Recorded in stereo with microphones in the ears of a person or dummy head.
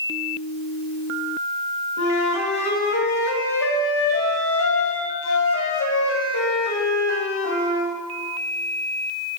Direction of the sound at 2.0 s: 80° left.